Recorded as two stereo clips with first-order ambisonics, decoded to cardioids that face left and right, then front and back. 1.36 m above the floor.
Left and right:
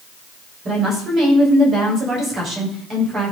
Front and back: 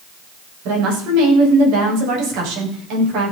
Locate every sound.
0.7 s a woman speaking: 155° right, 6.5 m